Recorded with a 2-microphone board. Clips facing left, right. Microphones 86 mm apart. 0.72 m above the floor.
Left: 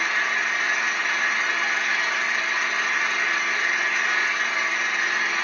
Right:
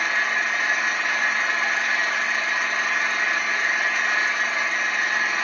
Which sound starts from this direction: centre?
An engine running, at 0.0 s.